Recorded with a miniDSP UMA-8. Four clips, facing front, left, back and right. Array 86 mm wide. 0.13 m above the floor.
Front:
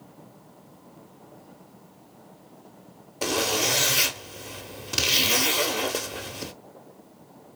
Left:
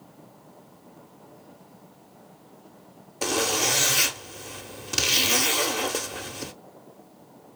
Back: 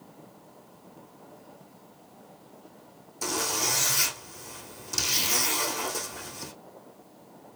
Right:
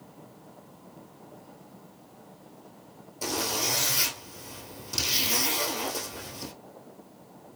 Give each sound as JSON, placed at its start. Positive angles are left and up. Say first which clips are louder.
{"t": 3.2, "sound": "a zipper", "louder": "left 5 dB, front 5 dB", "azimuth_deg": 40, "distance_m": 1.0}